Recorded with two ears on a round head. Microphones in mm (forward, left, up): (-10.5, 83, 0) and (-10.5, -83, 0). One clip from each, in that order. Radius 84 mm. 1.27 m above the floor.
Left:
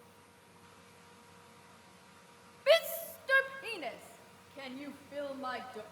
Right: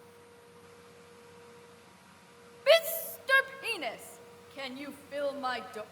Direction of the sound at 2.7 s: 5° right (ahead or behind).